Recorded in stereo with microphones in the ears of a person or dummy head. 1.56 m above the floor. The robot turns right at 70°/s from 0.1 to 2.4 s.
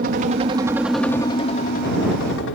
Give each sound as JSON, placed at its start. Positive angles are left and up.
{"t": 0.0, "sound": "a helicopter", "azimuth_deg": -60}